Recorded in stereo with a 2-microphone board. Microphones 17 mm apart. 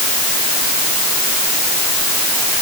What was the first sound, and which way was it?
Only background noise.